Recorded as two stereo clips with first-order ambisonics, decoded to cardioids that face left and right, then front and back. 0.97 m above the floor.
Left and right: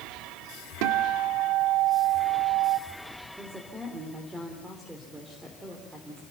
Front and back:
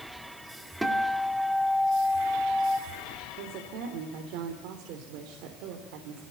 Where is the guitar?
95° right, 1.7 m.